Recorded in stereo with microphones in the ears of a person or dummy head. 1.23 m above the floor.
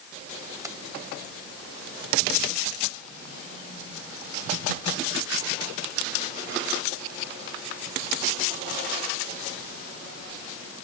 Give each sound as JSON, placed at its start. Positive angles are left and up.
{"t": 0.6, "sound": "keys jangling", "side_deg": -15}